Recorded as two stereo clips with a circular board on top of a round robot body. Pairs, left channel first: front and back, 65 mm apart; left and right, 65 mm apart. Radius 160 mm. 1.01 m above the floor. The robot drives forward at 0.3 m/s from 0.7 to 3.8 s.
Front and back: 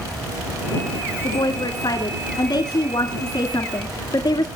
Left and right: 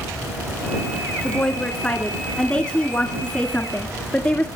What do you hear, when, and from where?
1.2 s a woman speaking: 20° left, 2.5 m; by 4.5 s 25° left, 2.0 m